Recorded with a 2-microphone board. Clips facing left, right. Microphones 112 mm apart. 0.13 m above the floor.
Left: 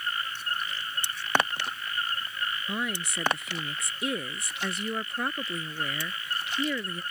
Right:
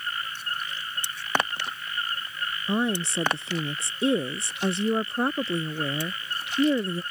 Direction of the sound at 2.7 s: 30° right (ahead or behind).